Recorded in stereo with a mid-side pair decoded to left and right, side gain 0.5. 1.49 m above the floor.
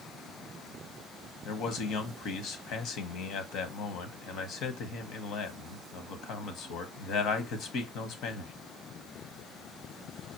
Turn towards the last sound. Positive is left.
turn(degrees=70)